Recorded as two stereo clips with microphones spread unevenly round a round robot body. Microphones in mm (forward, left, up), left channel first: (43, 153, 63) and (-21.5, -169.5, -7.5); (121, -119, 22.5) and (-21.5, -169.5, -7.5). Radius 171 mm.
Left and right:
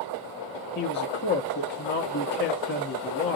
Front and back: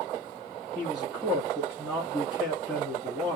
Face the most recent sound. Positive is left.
turn(degrees=135)